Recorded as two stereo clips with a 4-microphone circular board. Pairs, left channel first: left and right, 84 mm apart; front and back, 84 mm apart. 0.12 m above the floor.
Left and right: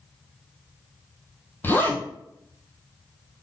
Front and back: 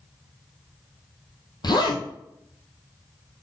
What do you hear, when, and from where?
1.6 s a zipper: 25° left, 1.6 m